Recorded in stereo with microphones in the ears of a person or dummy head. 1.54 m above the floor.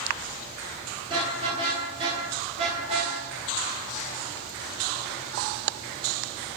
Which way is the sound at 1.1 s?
25° right (ahead or behind).